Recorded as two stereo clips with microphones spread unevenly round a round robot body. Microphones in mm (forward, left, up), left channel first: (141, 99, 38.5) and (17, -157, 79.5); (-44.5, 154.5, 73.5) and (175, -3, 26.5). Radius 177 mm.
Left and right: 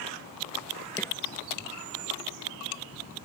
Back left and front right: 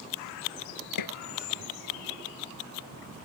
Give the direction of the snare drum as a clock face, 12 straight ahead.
7 o'clock.